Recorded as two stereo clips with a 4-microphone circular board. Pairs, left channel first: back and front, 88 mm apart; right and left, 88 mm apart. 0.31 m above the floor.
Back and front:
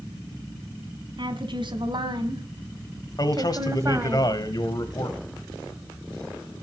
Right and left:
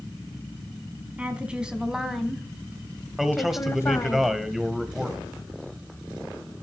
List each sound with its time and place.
1.2 s a woman speaking: 15° left, 2.5 m; by 4.2 s 55° right, 1.6 m
3.2 s a man speaking: 175° left, 1.4 m